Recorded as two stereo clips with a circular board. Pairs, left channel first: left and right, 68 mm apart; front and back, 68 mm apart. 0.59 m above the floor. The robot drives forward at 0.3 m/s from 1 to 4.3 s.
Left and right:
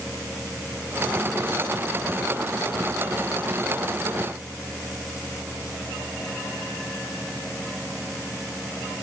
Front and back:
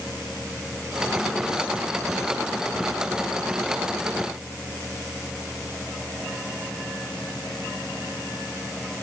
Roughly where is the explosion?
I don't hear an explosion.